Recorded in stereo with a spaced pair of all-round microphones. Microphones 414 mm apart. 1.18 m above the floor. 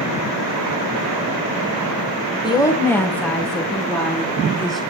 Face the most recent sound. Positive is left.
turn(degrees=0)  # may be behind; listen again after turning